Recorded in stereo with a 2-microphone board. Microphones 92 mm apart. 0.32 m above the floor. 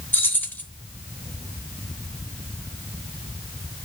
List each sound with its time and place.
0.1 s keys jangling: 20° left (ahead or behind), 0.9 m